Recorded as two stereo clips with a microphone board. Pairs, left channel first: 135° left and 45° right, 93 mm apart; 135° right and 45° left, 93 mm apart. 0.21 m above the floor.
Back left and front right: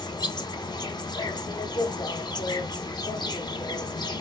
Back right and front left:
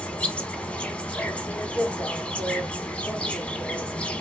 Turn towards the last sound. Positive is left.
turn(degrees=150)